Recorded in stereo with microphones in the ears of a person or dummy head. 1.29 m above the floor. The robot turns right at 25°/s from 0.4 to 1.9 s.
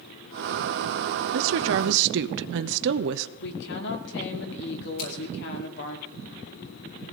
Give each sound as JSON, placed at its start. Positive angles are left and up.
{"t": 1.3, "sound": "a woman speaking", "side_deg": -85, "distance_m": 0.8}
{"t": 3.4, "sound": "a woman speaking", "side_deg": 70, "distance_m": 3.0}
{"t": 5.0, "sound": "scissors", "side_deg": 75, "distance_m": 7.5}